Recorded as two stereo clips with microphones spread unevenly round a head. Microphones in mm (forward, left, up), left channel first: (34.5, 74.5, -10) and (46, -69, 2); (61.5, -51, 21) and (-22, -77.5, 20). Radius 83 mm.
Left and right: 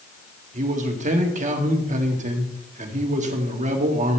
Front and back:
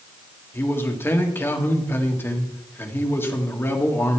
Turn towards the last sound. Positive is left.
turn(degrees=-45)